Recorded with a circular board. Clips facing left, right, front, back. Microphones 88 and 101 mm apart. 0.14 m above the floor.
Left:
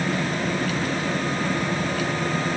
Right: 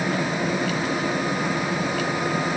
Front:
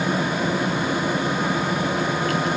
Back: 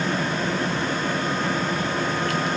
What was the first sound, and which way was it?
Only background noise.